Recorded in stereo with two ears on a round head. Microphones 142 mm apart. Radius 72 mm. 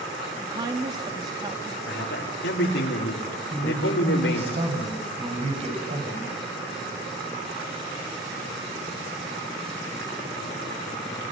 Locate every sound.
0.4 s a woman speaking: 25° right (ahead or behind), 2.5 m
1.9 s a man speaking: 85° left, 4.5 m
3.5 s a man speaking: 35° right (ahead or behind), 7.5 m